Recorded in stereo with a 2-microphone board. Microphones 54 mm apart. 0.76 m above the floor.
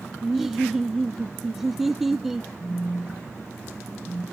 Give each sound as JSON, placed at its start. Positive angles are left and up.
{"t": 0.2, "sound": "laughter", "side_deg": -5, "distance_m": 0.7}
{"t": 2.6, "sound": "a phone buzzing", "side_deg": 75, "distance_m": 2.5}